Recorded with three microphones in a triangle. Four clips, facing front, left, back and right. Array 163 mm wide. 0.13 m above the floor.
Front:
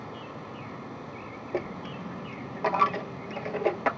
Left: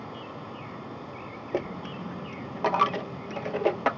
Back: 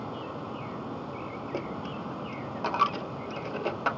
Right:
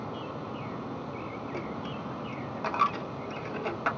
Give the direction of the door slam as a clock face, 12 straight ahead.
No door slam in this recording.